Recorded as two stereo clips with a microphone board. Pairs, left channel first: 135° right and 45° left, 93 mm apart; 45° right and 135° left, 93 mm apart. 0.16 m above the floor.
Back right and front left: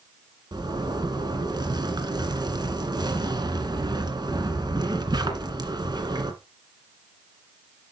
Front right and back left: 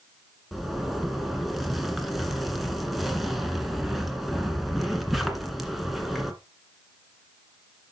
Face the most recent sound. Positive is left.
turn(degrees=45)